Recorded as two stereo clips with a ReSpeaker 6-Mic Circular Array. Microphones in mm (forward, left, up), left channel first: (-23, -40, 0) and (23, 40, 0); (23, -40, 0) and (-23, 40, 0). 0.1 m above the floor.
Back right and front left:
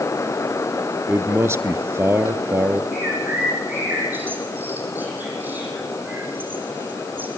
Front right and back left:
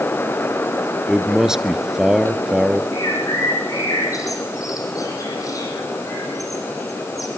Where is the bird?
10° right, 5 m.